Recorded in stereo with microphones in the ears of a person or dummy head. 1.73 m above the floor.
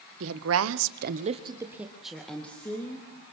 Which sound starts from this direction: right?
A woman speaking, at 0.2 s.